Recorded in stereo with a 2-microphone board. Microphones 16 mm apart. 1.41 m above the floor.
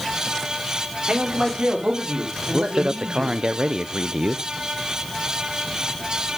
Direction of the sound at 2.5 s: 50° right (ahead or behind).